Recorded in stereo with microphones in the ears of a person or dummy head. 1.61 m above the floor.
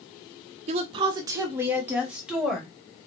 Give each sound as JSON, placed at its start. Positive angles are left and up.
{"t": 0.7, "sound": "a woman speaking", "side_deg": -40, "distance_m": 0.7}